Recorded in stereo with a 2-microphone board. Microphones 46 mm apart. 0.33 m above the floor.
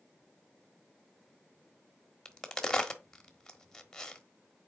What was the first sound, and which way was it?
A crack, 15° left (ahead or behind).